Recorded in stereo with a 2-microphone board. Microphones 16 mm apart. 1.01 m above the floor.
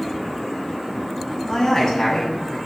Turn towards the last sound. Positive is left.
turn(degrees=35)  # may be behind; listen again after turning